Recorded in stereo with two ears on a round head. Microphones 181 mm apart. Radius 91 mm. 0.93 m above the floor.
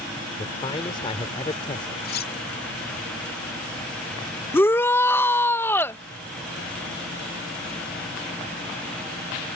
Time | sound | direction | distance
0.4 | a man speaking | 25° left (ahead or behind) | ?
2.0 | cutlery clinking | 50° left (ahead or behind) | ?
4.5 | a shout | 10° left (ahead or behind) | ?